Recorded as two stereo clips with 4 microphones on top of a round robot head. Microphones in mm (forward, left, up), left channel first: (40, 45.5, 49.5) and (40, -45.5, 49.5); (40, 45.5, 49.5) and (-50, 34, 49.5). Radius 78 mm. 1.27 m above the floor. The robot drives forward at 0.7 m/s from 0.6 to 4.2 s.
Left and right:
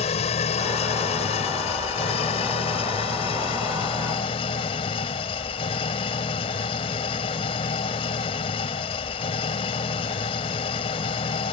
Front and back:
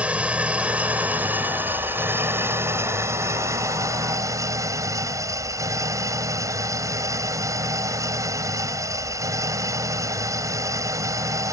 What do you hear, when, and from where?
0.0 s an engine running: 110° left; by 11.5 s 130° left